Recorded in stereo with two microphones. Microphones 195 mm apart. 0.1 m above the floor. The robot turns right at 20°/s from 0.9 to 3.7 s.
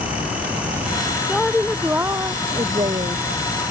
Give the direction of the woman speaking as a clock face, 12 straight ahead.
6 o'clock.